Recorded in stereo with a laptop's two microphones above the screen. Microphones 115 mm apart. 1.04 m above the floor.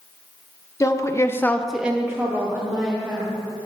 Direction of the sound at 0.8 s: 25° left (ahead or behind).